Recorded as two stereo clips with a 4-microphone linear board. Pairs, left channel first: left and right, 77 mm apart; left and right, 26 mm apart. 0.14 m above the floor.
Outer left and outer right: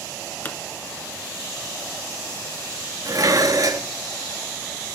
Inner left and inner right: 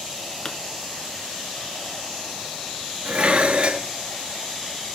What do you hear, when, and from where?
0.5 s a pop: 30° left (ahead or behind), 1.5 m
3.0 s dishes clattering: 55° right (ahead or behind), 1.4 m